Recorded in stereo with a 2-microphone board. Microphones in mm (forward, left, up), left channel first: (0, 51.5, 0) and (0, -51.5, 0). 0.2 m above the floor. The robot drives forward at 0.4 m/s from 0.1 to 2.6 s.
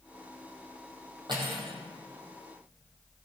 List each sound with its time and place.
1.3 s cutlery clinking: 50° right (ahead or behind), 4 m